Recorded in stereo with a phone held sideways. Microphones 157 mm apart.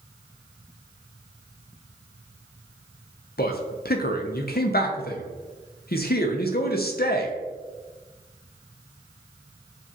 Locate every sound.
3.4 s a man speaking: 75° left (ahead or behind), 0.6 m